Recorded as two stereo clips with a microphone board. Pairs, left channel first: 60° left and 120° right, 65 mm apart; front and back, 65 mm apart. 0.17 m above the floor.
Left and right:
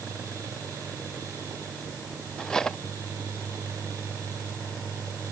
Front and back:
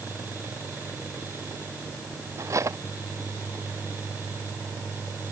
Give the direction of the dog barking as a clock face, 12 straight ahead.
I don't hear a dog barking.